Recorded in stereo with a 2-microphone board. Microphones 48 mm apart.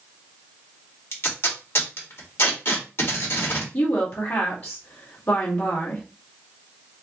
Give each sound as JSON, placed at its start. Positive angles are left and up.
{"t": 1.1, "sound": "tape being pulled", "side_deg": 50, "distance_m": 2.0}
{"t": 3.7, "sound": "a woman speaking", "side_deg": 50, "distance_m": 1.9}